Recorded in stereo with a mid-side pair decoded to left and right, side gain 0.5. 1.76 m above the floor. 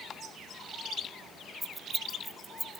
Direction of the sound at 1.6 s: 10° right.